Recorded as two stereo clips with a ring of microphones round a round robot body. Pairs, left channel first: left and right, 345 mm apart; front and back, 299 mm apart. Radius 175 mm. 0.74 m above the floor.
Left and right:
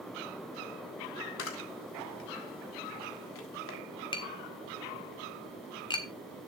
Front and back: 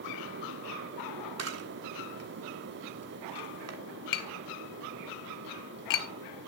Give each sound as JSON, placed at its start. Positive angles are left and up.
{"t": 1.4, "sound": "a camera shutter", "azimuth_deg": 145, "distance_m": 1.8}
{"t": 4.1, "sound": "tapping", "azimuth_deg": 10, "distance_m": 1.5}